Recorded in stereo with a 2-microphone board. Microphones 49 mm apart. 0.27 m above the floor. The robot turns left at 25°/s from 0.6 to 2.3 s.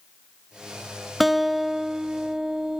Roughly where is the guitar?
Centre.